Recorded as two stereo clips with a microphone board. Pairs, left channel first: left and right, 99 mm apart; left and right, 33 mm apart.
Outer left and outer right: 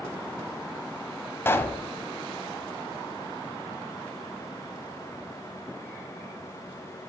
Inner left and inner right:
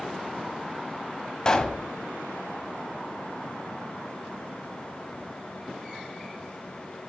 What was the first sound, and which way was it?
A pop, 25° left (ahead or behind).